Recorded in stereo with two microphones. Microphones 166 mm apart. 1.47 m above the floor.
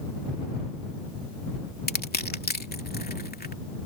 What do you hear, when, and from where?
1.9 s crushing: 70° left (ahead or behind)